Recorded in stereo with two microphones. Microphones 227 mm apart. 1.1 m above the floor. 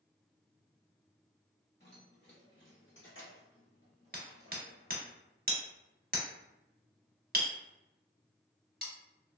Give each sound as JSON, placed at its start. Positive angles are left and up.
{"t": 1.8, "sound": "keys jangling", "side_deg": 45, "distance_m": 1.7}
{"t": 4.1, "sound": "hammering", "side_deg": -40, "distance_m": 0.9}